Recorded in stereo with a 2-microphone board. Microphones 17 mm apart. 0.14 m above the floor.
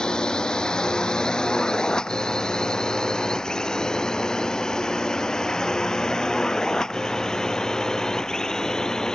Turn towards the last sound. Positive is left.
turn(degrees=40)  # may be behind; listen again after turning